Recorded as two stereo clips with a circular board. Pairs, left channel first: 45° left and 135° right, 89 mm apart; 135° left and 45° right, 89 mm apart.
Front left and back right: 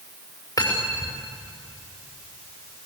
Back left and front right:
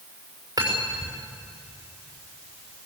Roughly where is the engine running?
No engine running in this recording.